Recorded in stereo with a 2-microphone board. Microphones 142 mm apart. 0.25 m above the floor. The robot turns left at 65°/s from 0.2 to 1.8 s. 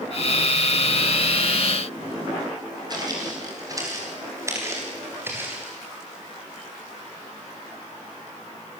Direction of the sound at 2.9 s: 30° right (ahead or behind).